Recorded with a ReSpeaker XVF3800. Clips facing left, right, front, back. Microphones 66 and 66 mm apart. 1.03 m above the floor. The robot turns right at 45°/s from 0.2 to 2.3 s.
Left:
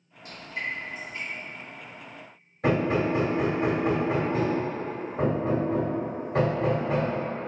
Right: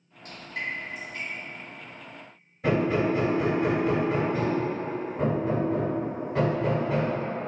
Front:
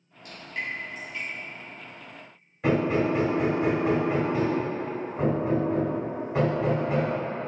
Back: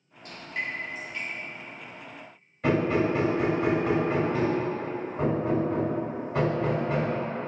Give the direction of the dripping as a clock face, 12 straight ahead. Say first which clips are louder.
Even, even; 4 o'clock.